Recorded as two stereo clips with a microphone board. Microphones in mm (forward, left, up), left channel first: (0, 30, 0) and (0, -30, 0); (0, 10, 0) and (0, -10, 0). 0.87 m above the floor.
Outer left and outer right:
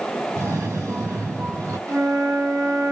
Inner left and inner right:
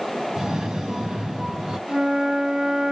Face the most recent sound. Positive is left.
turn(degrees=-65)  # may be behind; listen again after turning